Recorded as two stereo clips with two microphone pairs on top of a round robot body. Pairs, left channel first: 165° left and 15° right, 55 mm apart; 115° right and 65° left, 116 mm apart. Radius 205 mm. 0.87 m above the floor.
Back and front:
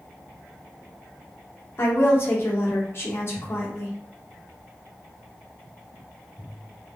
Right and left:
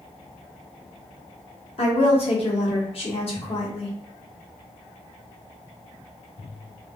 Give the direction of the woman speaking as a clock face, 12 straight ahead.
5 o'clock.